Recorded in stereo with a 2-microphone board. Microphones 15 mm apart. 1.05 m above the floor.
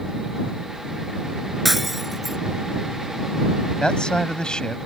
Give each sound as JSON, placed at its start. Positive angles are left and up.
{"t": 1.6, "sound": "breaking glass", "side_deg": -15}
{"t": 3.8, "sound": "a man speaking", "side_deg": 65}